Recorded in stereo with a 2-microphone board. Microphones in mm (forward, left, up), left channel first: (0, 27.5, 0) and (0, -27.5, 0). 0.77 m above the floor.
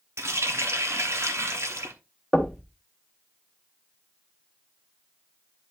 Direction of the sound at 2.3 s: 5° right (ahead or behind).